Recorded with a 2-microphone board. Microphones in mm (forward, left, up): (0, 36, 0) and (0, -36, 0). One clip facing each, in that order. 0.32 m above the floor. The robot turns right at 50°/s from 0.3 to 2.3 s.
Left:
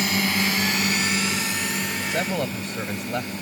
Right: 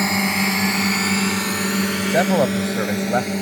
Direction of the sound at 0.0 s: 30° right (ahead or behind).